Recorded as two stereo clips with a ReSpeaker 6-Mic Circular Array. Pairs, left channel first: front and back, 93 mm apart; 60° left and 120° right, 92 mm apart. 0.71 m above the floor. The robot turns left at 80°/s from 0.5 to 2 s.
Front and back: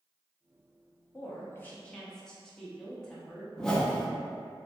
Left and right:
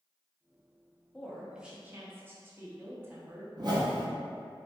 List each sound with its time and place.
1.1 s a woman speaking: 10° right, 0.6 m; by 3.5 s 75° right, 0.6 m
3.6 s a whoosh: 85° right, 0.5 m